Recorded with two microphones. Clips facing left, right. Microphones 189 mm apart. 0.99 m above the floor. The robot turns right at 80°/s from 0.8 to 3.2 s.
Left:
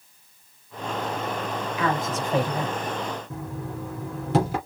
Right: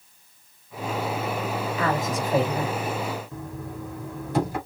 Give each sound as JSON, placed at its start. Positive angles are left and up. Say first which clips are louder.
{"t": 1.8, "sound": "a woman speaking", "louder": "even", "azimuth_deg": -45, "distance_m": 3.5}
{"t": 3.3, "sound": "knocking", "louder": "left 2 dB", "side_deg": 75, "distance_m": 3.5}